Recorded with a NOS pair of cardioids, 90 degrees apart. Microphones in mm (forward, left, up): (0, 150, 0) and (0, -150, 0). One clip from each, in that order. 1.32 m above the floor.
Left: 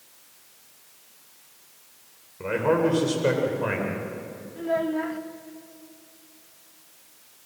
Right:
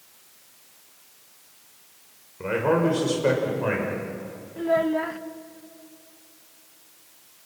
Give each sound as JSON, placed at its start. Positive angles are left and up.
{"t": 2.4, "sound": "a man speaking", "azimuth_deg": -5, "distance_m": 6.0}
{"t": 4.6, "sound": "a child speaking", "azimuth_deg": -20, "distance_m": 1.3}